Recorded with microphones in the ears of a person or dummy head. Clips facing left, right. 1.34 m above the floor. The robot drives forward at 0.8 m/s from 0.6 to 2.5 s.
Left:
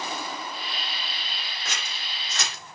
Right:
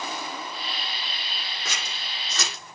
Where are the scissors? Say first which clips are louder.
Right 1 dB; 75° right (ahead or behind), 4.5 m.